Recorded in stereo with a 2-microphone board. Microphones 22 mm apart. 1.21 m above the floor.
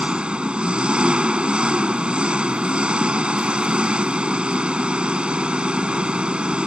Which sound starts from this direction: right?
An engine running, at 0.0 s.